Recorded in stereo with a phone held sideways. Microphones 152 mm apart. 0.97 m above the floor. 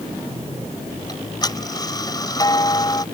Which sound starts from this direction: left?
Ticking, at 1.1 s.